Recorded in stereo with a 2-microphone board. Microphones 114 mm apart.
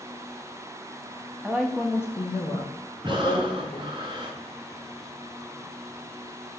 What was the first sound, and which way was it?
A woman speaking, 10° right (ahead or behind).